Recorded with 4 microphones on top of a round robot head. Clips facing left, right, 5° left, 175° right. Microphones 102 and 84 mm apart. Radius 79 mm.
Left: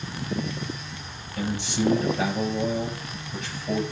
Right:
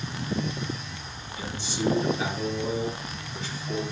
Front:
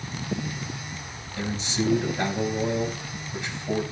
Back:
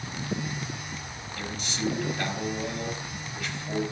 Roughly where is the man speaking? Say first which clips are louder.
Left 5 dB, front 6 dB; left.